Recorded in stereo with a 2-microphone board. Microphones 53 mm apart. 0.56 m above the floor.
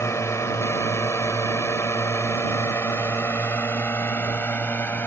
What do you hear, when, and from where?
0.0 s a drone: 60° left (ahead or behind); by 5.1 s 40° left (ahead or behind)